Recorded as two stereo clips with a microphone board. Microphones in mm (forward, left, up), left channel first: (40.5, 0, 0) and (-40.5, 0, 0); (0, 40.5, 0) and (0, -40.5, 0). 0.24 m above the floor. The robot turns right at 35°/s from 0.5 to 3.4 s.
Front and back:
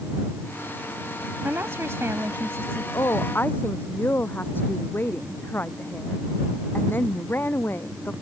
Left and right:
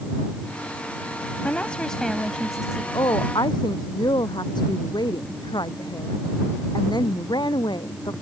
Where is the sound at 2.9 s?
50° left; by 8.1 s 65° left.